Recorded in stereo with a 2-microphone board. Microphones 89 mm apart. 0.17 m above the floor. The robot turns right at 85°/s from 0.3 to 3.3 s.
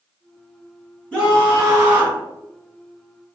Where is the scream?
15° left (ahead or behind), 1.2 m; by 2.2 s 20° right (ahead or behind), 1.2 m.